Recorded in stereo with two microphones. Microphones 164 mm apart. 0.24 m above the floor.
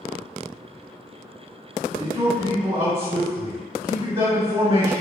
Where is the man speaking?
20° right (ahead or behind), 1.1 m.